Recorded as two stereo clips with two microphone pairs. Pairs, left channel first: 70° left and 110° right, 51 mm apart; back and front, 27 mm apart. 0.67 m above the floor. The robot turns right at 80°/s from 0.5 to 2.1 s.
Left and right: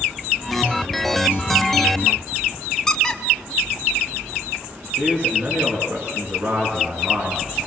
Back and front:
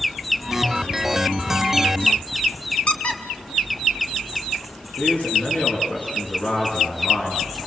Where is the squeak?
145° left, 2.5 m.